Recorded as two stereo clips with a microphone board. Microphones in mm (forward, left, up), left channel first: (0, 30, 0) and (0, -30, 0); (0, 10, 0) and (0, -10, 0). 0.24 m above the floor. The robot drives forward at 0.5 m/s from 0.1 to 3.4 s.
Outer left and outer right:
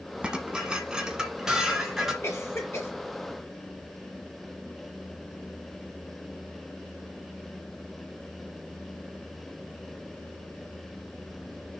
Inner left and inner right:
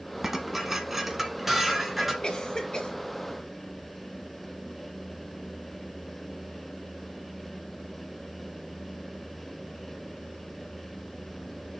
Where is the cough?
50° left (ahead or behind), 2.5 m; by 2.9 s 45° left (ahead or behind), 2.5 m.